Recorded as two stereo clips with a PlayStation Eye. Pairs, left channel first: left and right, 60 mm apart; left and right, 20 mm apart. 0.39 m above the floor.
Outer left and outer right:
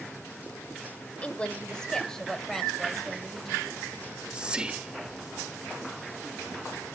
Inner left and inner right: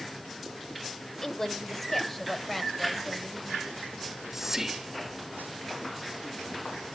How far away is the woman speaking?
About 1.0 m.